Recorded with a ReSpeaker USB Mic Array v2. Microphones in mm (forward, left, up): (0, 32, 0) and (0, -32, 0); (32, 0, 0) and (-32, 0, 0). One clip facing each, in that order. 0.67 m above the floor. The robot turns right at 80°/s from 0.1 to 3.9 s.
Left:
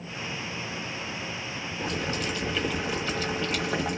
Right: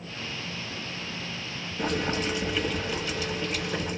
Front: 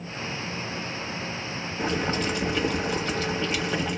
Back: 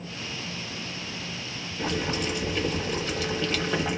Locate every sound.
1.8 s boiling: 70° right, 1.1 m; by 4.0 s 100° left, 1.1 m